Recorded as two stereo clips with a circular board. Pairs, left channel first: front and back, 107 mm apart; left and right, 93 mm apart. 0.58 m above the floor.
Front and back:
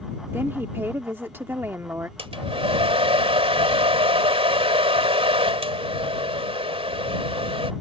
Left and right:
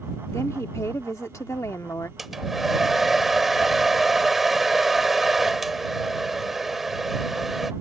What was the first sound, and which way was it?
A woman speaking, 120° left.